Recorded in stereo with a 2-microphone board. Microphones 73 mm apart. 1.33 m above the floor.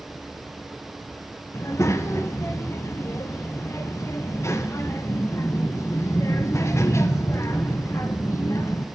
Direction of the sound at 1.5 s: 40° left (ahead or behind).